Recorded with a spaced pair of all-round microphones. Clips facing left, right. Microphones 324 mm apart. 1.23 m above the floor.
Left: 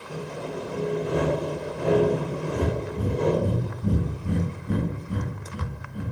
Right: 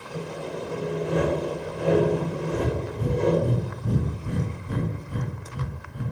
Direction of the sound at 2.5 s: 70° left (ahead or behind).